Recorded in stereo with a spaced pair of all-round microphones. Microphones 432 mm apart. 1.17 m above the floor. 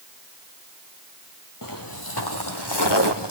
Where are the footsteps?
45° left (ahead or behind), 2 m; by 3.3 s 65° left (ahead or behind), 2.5 m.